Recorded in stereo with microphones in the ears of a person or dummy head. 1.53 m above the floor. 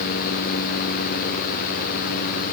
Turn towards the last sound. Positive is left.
No sound to turn to.